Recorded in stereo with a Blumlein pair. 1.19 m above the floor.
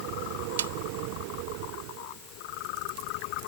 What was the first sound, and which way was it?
A snare drum, 65° right.